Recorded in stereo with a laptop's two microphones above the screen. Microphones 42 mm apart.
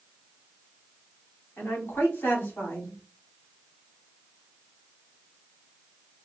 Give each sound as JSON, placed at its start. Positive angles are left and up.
{"t": 1.6, "sound": "a woman speaking", "side_deg": 75, "distance_m": 3.5}